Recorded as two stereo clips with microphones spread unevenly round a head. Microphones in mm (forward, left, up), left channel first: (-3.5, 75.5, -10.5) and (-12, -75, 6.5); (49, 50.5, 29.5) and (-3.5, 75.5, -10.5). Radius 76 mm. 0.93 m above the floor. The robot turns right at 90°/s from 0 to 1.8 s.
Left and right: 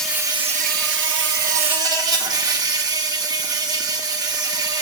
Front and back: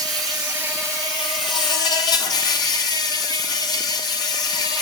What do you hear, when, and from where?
0.0 s an insect: 170° left, 1.3 m; by 4.8 s 25° right, 1.3 m